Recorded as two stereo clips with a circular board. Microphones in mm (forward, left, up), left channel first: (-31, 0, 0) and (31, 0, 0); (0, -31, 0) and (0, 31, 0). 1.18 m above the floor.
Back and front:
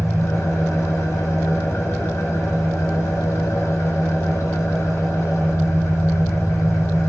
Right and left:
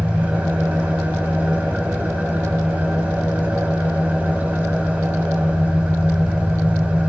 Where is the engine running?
150° left, 3.5 m.